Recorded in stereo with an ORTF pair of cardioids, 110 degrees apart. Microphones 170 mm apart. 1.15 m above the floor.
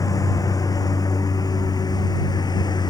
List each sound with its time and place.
0.0 s a lawn mower: 20° left; by 2.9 s 25° left